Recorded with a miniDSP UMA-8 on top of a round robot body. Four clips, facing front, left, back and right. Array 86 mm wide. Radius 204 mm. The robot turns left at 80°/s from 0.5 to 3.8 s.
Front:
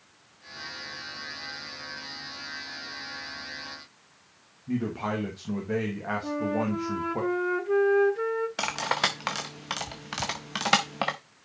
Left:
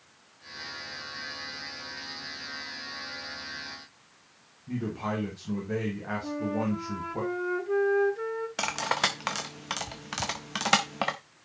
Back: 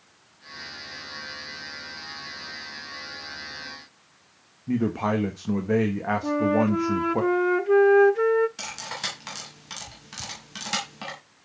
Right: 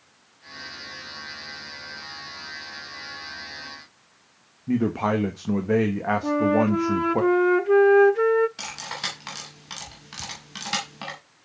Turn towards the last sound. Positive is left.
turn(degrees=40)